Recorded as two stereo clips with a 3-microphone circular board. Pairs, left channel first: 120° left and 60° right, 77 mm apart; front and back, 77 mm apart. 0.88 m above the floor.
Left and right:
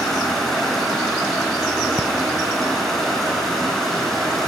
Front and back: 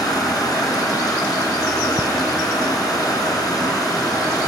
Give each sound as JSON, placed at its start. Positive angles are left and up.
{"t": 0.0, "sound": "running water", "azimuth_deg": 30, "distance_m": 3.0}